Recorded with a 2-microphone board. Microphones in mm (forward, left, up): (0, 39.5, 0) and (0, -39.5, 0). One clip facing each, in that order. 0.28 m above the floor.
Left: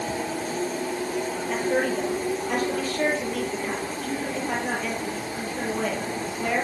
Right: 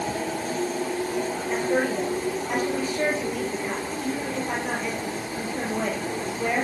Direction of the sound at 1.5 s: 15° right (ahead or behind).